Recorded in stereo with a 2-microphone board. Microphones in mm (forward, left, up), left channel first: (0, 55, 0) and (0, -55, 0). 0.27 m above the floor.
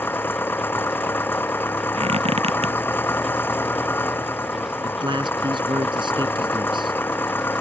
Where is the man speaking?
45° right (ahead or behind).